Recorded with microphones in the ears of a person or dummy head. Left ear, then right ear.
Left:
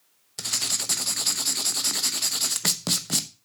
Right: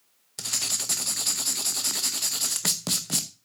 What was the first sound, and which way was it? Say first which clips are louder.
Writing: left 1 dB; 5° left (ahead or behind).